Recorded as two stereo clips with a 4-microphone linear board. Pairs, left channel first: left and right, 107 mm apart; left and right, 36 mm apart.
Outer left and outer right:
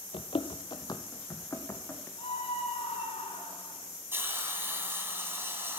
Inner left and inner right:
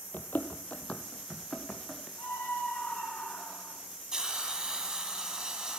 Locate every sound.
0.1 s running footsteps: 60° left (ahead or behind), 0.8 m; by 2.1 s 20° left (ahead or behind), 2.5 m
2.2 s a scream: 65° left (ahead or behind), 5.5 m
4.1 s a hiss: 20° right (ahead or behind), 1.5 m